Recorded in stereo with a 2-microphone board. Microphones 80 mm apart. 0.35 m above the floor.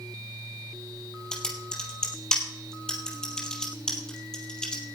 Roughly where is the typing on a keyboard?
Centre.